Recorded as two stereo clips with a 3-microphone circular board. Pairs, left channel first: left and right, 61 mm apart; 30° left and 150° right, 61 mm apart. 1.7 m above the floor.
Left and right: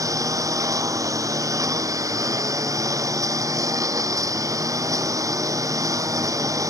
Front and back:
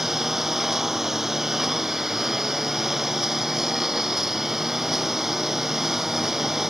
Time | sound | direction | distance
0.0 | a lawn mower | 65° right | ?